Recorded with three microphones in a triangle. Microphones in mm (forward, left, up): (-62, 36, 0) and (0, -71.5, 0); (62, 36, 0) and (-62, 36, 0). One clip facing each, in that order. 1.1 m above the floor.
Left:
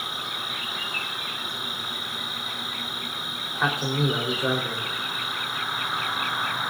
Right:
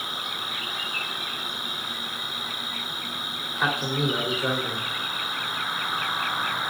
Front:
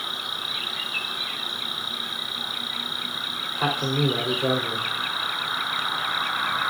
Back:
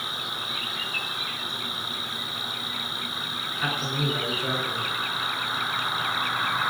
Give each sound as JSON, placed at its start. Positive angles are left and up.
{"t": 0.0, "sound": "an insect", "azimuth_deg": -130, "distance_m": 6.0}
{"t": 3.5, "sound": "a man speaking", "azimuth_deg": 30, "distance_m": 3.5}